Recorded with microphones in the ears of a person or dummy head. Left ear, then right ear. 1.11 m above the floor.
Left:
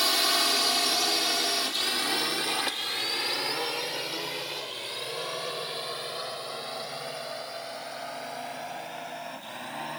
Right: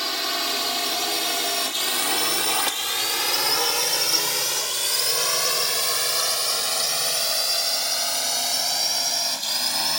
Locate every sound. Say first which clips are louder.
0.0 s a drone: left 1 dB; 5° left (ahead or behind); by 10.0 s 75° right (ahead or behind)